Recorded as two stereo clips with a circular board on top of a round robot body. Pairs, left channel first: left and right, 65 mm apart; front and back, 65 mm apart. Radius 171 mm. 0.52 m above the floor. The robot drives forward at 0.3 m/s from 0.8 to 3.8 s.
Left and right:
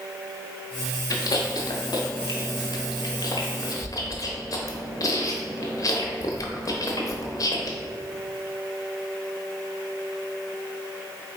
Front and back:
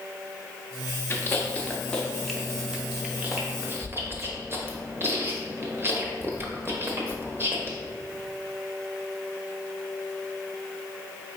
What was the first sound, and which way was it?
Chewing, 60° left.